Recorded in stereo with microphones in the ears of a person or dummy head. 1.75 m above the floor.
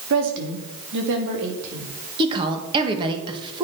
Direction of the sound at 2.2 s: 30° right (ahead or behind).